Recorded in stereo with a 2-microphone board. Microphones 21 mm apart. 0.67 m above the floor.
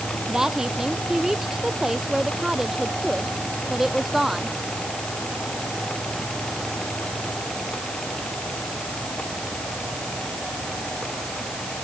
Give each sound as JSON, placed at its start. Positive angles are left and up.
{"t": 0.3, "sound": "a woman speaking", "side_deg": -25}